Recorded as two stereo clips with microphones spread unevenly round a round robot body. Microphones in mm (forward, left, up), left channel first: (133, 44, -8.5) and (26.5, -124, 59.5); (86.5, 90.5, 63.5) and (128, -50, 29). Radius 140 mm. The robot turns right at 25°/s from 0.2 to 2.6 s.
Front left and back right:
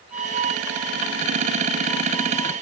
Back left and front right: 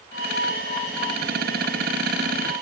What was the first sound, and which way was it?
Only background noise.